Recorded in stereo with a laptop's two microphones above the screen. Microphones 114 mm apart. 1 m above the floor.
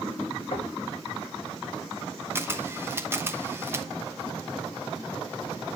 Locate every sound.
0.5 s knocking: 55° left (ahead or behind), 2 m
2.4 s a camera shutter: 20° right (ahead or behind), 0.9 m